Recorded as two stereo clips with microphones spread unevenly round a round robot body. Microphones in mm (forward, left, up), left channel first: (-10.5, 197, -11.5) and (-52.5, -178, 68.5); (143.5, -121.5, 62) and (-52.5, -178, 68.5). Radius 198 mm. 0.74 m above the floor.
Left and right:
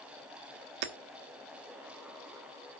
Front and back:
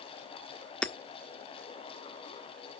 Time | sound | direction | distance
0.8 | hammering | 70° right | 1.6 m